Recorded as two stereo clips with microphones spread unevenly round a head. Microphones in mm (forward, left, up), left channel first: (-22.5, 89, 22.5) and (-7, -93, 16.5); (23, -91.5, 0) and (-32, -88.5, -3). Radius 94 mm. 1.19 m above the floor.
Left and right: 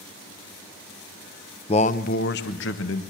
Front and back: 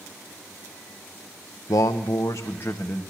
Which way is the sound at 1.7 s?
35° left.